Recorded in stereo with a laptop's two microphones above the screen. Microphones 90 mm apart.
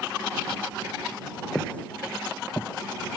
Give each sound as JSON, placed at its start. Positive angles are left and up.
{"t": 1.6, "sound": "footsteps", "side_deg": 10}